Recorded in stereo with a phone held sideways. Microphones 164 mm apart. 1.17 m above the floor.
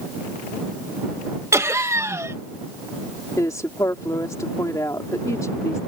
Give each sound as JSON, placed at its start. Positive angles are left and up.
{"t": 1.5, "sound": "laughter", "side_deg": -15}
{"t": 3.4, "sound": "a woman speaking", "side_deg": 20}